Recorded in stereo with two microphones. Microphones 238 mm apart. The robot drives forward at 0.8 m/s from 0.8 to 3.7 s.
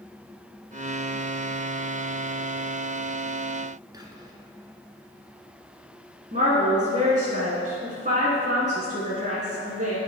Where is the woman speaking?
35° right (ahead or behind), 1.5 m.